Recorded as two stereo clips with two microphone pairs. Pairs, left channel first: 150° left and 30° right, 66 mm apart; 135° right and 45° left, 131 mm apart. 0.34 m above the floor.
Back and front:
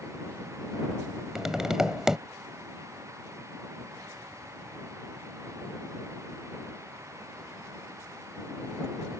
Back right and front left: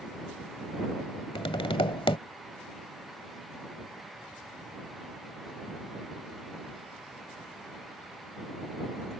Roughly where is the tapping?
Right.